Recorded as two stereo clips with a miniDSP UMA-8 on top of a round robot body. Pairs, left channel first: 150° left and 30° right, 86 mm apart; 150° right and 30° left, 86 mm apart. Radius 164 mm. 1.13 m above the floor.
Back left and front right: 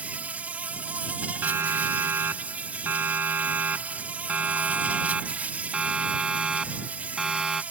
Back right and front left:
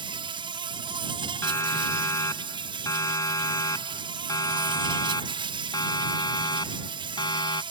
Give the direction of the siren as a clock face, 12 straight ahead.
3 o'clock.